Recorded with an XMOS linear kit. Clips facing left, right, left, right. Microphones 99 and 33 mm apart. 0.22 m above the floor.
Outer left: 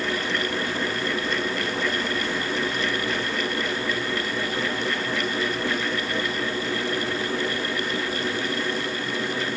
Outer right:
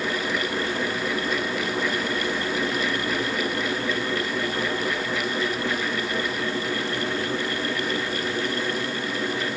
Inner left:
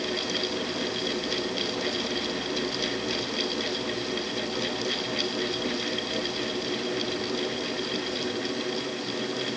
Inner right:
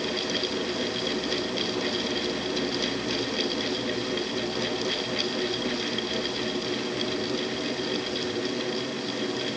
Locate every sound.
Only background noise.